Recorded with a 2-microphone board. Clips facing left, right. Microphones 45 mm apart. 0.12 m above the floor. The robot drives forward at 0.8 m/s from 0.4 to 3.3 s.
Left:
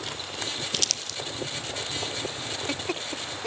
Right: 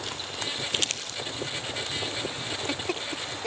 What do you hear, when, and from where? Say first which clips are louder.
0.7 s crumpling: right 2 dB; 30° right (ahead or behind), 2.5 m; by 1.2 s 25° right (ahead or behind), 3 m